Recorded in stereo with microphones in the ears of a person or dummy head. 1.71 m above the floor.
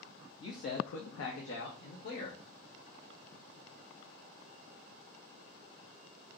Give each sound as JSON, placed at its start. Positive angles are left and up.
{"t": 0.4, "sound": "a man speaking", "side_deg": 30, "distance_m": 0.7}